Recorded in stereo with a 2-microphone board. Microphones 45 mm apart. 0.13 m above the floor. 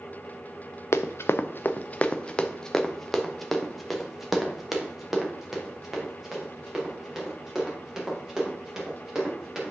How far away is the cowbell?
I don't hear a cowbell.